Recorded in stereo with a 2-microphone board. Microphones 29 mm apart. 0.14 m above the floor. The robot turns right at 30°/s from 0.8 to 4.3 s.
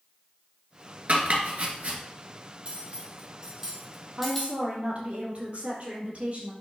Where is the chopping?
50° right (ahead or behind), 2 m; by 2.0 s 55° right (ahead or behind), 2 m.